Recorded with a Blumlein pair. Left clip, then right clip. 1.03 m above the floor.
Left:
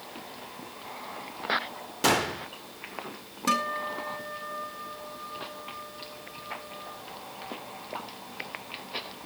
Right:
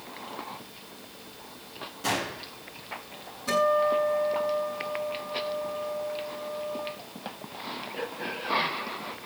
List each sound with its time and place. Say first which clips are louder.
2.0 s a gunshot: left 5 dB; 35° left, 2.5 m
3.5 s a guitar: right 5 dB; 55° left, 7 m